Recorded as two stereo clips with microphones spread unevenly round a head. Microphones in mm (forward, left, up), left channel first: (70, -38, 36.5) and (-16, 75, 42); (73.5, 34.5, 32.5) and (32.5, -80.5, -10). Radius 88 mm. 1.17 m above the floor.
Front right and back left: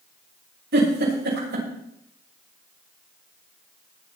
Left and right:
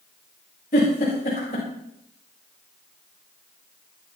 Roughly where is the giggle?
Behind left.